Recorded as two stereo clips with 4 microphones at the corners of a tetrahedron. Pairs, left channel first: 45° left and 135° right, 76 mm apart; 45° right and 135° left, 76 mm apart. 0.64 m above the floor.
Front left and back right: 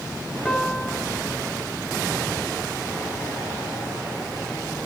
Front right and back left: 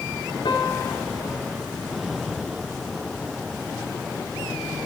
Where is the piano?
35° right, 2 m.